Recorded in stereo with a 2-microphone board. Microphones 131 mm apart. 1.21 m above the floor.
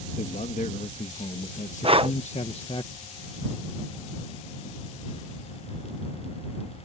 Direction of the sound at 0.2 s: 80° left.